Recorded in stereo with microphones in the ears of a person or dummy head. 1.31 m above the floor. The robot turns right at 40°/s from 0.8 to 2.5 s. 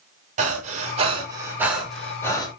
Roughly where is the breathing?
Right.